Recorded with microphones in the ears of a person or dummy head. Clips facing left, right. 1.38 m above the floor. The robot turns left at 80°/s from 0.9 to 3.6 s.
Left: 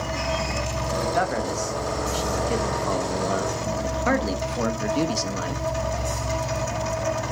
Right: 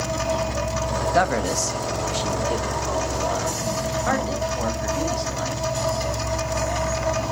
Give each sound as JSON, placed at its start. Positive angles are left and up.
{"t": 1.0, "sound": "a man speaking", "azimuth_deg": -105, "distance_m": 1.1}